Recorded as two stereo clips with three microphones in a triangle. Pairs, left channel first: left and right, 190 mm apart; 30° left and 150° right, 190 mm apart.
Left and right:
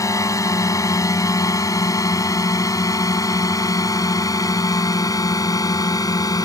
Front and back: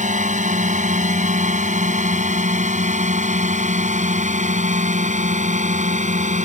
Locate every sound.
0.0 s a drone: 165° left; by 6.5 s 160° left